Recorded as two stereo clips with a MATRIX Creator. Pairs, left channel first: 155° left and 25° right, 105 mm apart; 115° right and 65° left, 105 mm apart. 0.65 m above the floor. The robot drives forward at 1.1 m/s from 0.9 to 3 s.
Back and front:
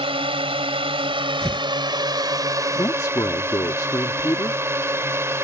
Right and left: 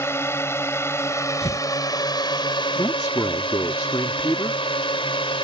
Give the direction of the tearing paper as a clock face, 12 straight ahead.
4 o'clock.